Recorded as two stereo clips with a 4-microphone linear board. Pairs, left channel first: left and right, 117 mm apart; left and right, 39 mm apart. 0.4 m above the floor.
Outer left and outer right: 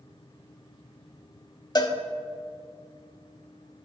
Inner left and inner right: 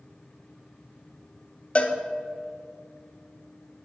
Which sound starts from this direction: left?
A cowbell, at 1.8 s.